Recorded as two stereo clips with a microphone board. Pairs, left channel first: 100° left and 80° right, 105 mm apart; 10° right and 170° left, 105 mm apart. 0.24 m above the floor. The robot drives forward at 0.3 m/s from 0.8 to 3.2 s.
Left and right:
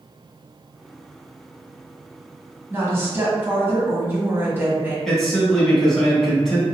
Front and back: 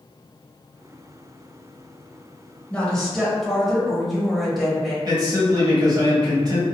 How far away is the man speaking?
About 1.3 m.